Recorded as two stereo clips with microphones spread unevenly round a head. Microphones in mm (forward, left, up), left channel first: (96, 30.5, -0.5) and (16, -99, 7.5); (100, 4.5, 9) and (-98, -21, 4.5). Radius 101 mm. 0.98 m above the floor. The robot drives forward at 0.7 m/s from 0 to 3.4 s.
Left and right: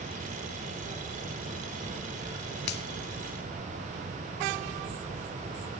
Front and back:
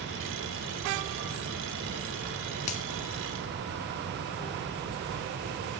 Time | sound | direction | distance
2.7 | a finger snap | 65° left | 2 m